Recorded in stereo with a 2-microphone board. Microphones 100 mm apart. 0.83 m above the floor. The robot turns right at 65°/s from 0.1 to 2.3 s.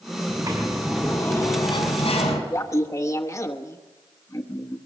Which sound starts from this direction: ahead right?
A sliding door, at 0.3 s.